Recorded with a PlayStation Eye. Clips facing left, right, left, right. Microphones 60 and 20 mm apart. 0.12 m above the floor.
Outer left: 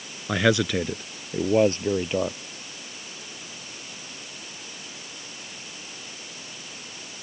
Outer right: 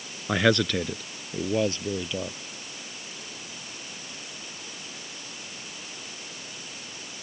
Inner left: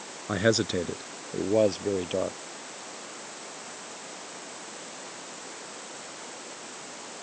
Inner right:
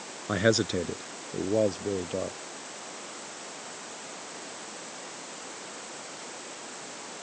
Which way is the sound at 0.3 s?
5° right (ahead or behind).